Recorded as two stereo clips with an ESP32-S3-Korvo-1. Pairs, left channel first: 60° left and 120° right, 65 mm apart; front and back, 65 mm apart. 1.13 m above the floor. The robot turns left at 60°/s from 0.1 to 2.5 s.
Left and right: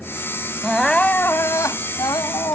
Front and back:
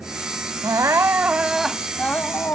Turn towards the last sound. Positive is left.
turn(degrees=45)